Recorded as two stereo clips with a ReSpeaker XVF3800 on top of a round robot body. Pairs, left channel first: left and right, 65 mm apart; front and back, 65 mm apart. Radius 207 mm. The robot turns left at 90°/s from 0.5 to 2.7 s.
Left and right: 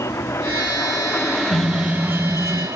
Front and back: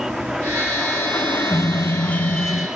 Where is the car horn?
60° left; by 2.7 s 45° right.